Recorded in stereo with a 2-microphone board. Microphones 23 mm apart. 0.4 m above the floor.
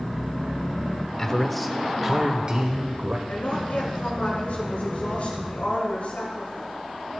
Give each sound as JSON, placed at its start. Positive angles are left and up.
{"t": 1.2, "sound": "a man speaking", "side_deg": 20, "distance_m": 0.8}
{"t": 3.3, "sound": "a woman speaking", "side_deg": 80, "distance_m": 4.5}